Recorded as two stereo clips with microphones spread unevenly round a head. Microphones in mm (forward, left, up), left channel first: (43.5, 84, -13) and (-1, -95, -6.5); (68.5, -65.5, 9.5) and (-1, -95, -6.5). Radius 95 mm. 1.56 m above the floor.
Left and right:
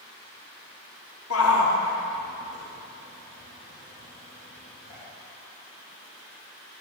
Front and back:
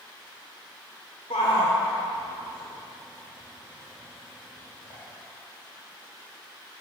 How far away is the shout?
About 0.9 m.